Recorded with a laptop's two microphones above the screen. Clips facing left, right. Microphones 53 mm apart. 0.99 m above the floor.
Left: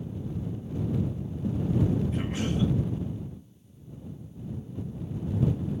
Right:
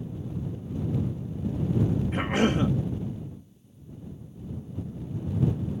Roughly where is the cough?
Right.